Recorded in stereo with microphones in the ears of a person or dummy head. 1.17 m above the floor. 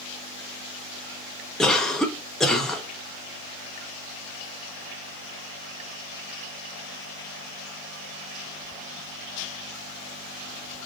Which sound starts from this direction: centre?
A cough, at 1.6 s.